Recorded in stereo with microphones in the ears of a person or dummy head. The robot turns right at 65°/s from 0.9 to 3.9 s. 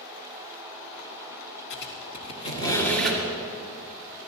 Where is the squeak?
55° left (ahead or behind), 2 m; by 3.2 s 5° right (ahead or behind), 2 m.